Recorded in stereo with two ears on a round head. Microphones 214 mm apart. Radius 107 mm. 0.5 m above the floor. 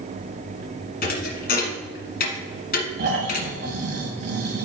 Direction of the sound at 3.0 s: 45° right (ahead or behind).